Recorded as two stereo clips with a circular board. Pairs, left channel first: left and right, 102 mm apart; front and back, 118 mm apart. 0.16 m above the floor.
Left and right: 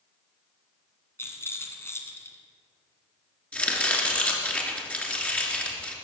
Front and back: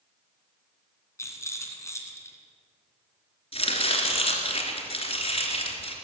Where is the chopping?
15° left, 2.5 m.